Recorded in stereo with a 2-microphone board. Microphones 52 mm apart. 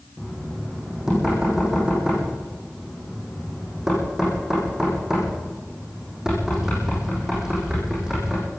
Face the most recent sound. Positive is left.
turn(degrees=-10)  # may be behind; listen again after turning